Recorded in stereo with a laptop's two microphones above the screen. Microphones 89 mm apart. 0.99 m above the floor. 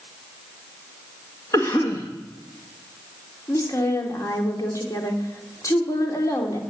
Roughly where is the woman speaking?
Left.